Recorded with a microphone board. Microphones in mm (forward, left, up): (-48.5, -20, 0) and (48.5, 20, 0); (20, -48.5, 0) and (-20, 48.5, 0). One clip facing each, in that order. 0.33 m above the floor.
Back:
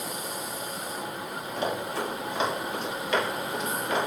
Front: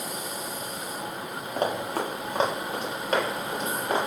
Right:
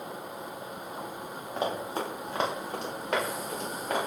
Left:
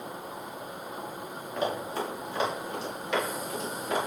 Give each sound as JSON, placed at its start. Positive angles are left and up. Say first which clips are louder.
{"t": 1.6, "sound": "running footsteps", "louder": "front 3 dB, left 1 dB", "azimuth_deg": -10, "distance_m": 2.0}